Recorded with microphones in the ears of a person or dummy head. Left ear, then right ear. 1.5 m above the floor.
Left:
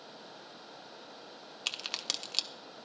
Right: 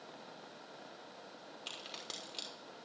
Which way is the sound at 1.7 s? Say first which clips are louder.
Left 11 dB; 50° left (ahead or behind).